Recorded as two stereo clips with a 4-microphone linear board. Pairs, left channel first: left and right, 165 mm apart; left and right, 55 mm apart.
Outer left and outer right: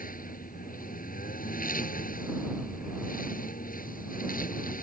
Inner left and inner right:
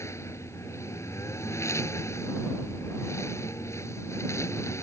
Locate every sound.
0.0 s a lawn mower: 60° left (ahead or behind)